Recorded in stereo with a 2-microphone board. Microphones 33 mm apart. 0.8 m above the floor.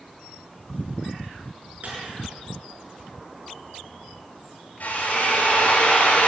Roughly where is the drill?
Left.